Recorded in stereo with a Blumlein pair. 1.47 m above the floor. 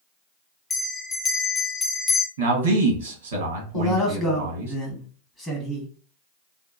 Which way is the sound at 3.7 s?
15° left.